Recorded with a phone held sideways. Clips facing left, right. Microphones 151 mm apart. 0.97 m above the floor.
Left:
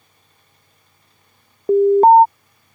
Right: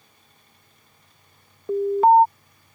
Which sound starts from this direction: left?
An alarm, at 1.7 s.